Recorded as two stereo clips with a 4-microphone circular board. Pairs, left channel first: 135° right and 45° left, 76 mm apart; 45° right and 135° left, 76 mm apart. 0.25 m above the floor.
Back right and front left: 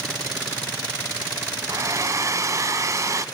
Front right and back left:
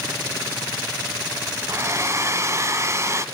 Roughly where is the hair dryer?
Left.